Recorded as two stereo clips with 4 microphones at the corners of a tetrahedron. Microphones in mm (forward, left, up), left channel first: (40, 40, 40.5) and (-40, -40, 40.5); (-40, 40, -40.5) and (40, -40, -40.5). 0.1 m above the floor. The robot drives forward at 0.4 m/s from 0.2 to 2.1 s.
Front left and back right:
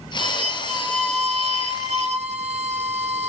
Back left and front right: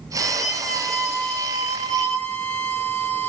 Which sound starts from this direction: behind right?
A violin, at 0.2 s.